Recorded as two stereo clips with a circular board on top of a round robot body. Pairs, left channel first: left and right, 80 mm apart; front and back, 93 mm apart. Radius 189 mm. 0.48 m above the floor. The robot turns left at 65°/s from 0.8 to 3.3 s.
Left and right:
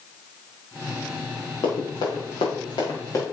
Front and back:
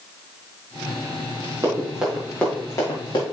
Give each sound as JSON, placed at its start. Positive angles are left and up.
{"t": 1.6, "sound": "running footsteps", "azimuth_deg": 120, "distance_m": 4.0}